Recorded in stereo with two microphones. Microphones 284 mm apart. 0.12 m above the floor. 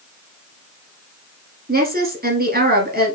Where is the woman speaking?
35° right (ahead or behind), 1.4 m.